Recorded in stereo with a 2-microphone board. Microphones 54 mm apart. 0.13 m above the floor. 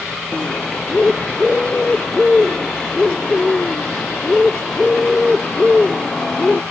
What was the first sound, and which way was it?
A bird, 15° left (ahead or behind).